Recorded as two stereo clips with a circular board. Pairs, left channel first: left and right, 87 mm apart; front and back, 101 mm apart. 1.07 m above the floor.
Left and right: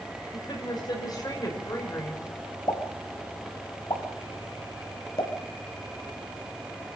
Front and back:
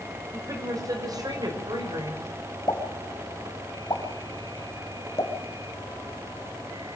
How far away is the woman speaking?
About 5.5 m.